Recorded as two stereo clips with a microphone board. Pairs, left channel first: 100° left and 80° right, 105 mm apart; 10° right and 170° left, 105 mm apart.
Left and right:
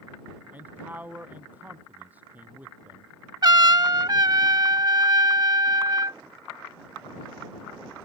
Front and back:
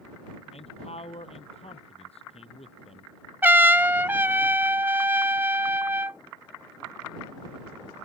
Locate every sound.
0.5 s a man speaking: 5° right
3.4 s a trumpet: 120° right